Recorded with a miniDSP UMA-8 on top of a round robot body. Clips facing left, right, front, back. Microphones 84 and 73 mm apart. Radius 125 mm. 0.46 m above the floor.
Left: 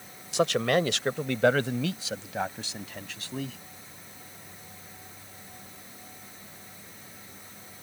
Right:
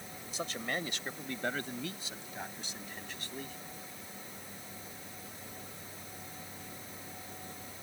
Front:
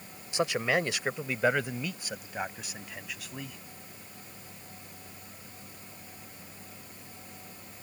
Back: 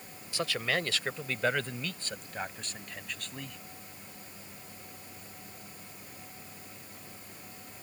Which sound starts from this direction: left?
A man speaking, at 0.3 s.